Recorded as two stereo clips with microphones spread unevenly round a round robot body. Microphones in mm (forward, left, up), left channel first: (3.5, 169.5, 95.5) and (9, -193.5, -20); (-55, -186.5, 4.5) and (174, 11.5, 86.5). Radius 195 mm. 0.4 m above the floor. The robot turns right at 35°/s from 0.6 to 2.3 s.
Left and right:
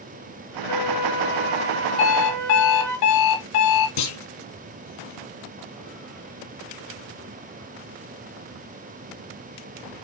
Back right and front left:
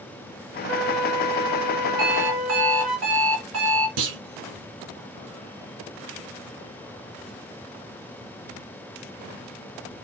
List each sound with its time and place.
0.7 s a flute: 175° left, 1.4 m; by 3.0 s 125° right, 1.4 m
2.0 s an alarm clock: 85° left, 2 m; by 3.9 s 100° left, 2 m
4.0 s a clunk: 60° left, 2 m